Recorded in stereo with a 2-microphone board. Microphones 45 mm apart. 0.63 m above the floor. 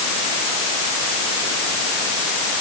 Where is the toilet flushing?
I don't hear a toilet flushing.